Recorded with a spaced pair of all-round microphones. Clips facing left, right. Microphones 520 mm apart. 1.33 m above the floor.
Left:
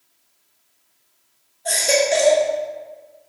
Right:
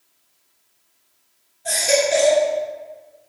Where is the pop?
I don't hear a pop.